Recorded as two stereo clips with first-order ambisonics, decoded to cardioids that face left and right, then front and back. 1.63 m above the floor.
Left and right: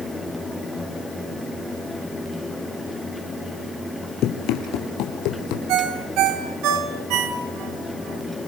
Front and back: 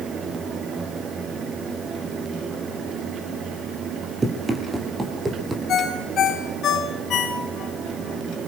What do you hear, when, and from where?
4.2 s running footsteps: 105° left, 2.5 m; by 5.6 s 100° left, 3.5 m
5.7 s a ringtone: 55° right, 2.5 m